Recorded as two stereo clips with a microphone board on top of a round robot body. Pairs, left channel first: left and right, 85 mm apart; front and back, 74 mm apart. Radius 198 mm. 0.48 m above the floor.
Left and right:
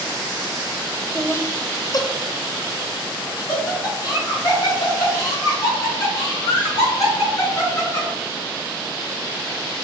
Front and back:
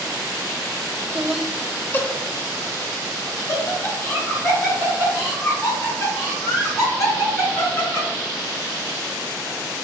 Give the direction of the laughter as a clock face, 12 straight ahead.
7 o'clock.